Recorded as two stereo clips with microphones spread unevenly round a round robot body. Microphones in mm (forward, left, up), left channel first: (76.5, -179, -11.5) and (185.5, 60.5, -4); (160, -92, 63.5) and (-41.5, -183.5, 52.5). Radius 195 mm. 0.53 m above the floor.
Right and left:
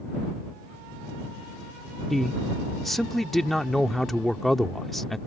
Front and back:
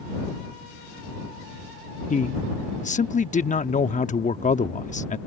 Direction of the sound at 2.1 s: 25° right.